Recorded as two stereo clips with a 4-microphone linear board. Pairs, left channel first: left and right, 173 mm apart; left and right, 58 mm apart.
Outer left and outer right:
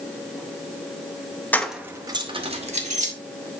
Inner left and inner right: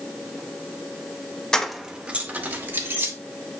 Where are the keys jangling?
10° left (ahead or behind), 0.8 m; by 3.1 s 45° right (ahead or behind), 1.8 m.